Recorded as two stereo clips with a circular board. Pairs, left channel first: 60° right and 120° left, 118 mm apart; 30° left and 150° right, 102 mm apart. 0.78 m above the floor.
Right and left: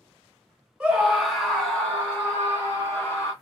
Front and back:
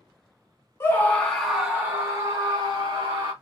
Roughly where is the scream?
Ahead left.